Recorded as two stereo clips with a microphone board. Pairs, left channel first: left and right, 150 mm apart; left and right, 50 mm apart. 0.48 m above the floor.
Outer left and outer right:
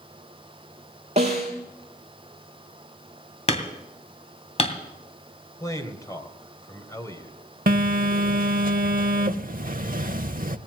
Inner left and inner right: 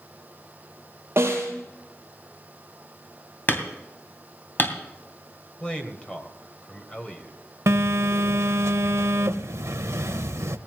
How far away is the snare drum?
About 5.5 m.